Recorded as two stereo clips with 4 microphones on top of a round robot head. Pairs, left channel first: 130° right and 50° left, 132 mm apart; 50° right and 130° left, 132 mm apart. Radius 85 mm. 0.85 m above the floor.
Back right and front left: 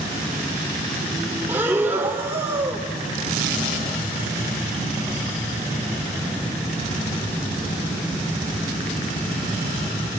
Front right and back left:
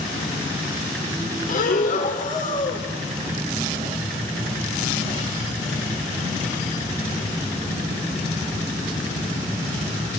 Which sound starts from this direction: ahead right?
Breathing, at 1.5 s.